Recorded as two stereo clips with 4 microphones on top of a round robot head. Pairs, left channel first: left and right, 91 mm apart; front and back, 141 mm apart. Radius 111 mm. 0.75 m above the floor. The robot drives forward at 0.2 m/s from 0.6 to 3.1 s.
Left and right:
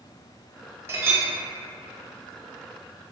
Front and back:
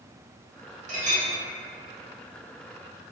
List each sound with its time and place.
0.9 s a clink: 155° right, 0.7 m